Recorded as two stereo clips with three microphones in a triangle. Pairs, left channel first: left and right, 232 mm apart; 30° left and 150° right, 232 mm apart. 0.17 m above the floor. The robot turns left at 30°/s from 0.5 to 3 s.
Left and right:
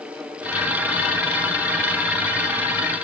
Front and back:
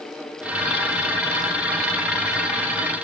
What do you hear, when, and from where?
Only background noise.